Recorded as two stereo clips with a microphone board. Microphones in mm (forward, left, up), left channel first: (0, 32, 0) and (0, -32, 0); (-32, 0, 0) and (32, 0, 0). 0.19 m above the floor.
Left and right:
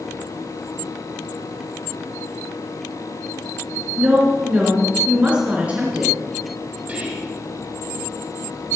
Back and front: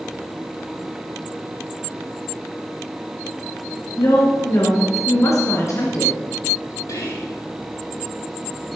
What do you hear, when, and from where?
4.0 s a woman speaking: 155° right, 3 m
6.9 s whispering: 160° right, 6.5 m